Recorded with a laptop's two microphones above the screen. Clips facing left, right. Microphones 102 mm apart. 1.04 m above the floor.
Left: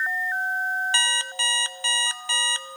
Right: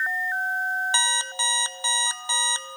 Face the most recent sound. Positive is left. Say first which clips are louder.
# right 1 dB
turn(degrees=-20)  # may be behind; listen again after turning